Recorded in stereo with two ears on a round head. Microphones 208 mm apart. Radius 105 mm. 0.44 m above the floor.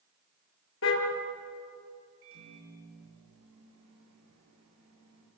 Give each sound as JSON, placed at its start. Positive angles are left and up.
{"t": 0.8, "sound": "a car horn", "side_deg": 65, "distance_m": 5.0}
{"t": 2.2, "sound": "a microwave", "side_deg": -65, "distance_m": 9.0}